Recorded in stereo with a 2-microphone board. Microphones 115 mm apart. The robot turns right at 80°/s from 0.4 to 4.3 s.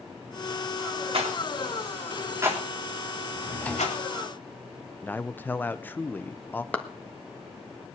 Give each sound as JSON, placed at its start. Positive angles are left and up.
{"t": 1.1, "sound": "a rattle", "side_deg": -55, "distance_m": 3.0}
{"t": 3.3, "sound": "a drawer", "azimuth_deg": 140, "distance_m": 2.5}
{"t": 5.0, "sound": "a man speaking", "side_deg": 15, "distance_m": 0.8}
{"t": 6.7, "sound": "a clap", "side_deg": 10, "distance_m": 1.5}